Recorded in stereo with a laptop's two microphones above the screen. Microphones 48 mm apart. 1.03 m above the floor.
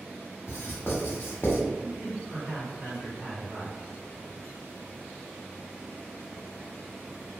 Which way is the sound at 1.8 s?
70° right (ahead or behind).